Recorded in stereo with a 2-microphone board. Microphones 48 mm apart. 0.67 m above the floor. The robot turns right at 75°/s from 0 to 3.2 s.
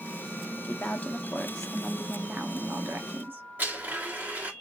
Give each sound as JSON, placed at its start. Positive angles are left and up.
{"t": 0.6, "sound": "a woman speaking", "azimuth_deg": 95, "distance_m": 0.7}
{"t": 3.6, "sound": "a blender", "side_deg": -40, "distance_m": 1.6}